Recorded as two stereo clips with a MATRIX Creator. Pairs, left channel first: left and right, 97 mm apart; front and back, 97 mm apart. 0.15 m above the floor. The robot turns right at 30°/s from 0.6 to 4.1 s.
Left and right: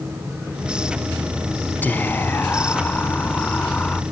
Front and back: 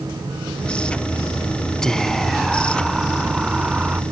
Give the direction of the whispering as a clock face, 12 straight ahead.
10 o'clock.